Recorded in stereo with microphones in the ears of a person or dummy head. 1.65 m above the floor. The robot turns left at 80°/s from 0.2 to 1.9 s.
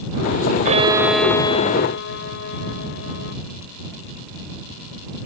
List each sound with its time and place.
0.7 s a violin: 135° right; by 3.4 s 125° left